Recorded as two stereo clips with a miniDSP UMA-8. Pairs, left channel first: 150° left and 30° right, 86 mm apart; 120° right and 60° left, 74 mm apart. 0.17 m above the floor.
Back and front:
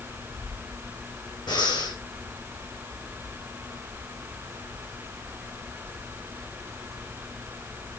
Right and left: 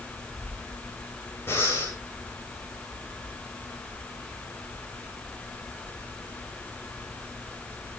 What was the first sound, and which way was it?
Breathing, straight behind.